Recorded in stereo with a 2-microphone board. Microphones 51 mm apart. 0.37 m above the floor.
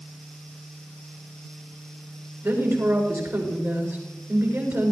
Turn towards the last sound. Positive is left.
turn(degrees=-65)  # may be behind; listen again after turning